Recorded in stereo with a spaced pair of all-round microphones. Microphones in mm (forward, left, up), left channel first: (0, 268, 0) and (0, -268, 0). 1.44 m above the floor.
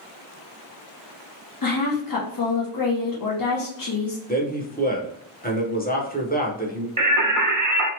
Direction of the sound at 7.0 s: 35° right (ahead or behind).